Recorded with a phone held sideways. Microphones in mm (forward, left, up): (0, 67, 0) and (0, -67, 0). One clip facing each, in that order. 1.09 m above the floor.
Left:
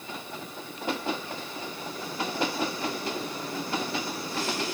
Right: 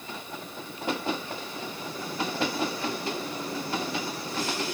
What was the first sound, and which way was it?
Only background noise.